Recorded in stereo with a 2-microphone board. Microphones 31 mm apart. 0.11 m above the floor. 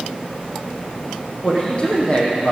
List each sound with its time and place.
1.4 s a man speaking: 25° left (ahead or behind), 4.5 m; by 2.5 s 35° left (ahead or behind), 4 m